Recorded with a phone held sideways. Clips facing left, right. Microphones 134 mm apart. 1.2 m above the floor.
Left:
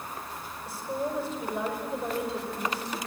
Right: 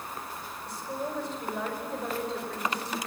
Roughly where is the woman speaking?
Centre.